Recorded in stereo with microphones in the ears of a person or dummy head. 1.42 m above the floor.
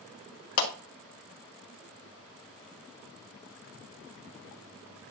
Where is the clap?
75° left (ahead or behind), 1.6 m.